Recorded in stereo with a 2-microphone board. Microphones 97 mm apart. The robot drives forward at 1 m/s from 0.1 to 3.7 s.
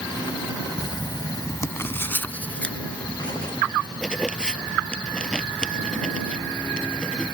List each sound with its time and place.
0.8 s writing: 40° left (ahead or behind); by 7.3 s 10° left (ahead or behind)